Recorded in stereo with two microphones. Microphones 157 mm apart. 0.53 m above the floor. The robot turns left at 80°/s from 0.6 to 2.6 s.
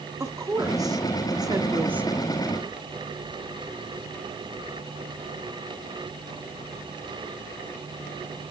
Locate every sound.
0.2 s a woman speaking: 20° right (ahead or behind), 0.8 m; by 2.2 s 5° right (ahead or behind), 0.8 m